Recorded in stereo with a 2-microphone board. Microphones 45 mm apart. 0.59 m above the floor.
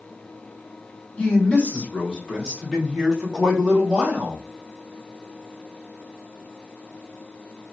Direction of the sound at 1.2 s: 30° left (ahead or behind).